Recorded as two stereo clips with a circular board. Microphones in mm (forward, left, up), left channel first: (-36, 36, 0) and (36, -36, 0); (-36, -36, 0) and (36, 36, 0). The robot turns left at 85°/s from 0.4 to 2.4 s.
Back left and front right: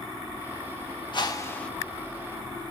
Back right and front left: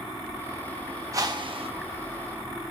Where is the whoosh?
100° left, 1.1 m; by 1.7 s 50° left, 1.1 m.